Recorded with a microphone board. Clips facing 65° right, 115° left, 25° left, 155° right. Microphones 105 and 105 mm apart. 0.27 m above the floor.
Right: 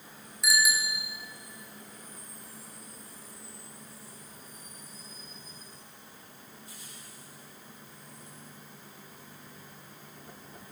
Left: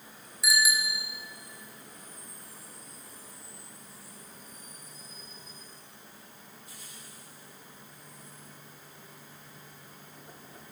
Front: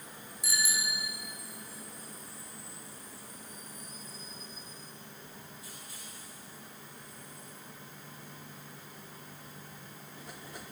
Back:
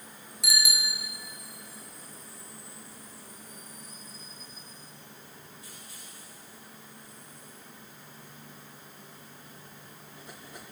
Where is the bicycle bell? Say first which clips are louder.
Even, back 2 dB; 160° right, 3.5 m.